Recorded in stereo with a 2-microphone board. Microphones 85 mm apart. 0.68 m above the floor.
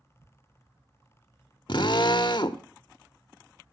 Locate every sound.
1.7 s a drill: 65° left (ahead or behind), 0.9 m